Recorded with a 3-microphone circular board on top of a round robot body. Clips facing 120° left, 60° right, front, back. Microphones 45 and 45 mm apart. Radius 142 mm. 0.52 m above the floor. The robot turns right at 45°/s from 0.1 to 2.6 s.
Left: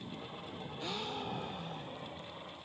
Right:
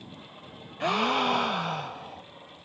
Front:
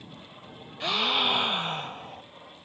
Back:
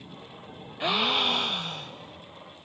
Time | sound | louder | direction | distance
0.8 | a gasp | right 16 dB, back 1 dB | 100° right | ?